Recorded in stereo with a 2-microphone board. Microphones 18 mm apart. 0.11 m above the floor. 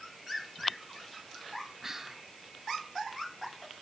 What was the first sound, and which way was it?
Whispering, 15° right (ahead or behind).